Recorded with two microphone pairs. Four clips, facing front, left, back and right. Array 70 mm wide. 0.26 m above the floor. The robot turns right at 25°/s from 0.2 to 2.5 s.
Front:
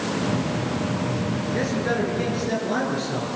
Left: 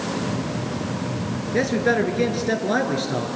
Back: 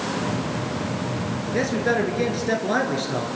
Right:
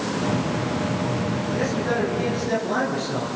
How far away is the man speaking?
About 3.5 m.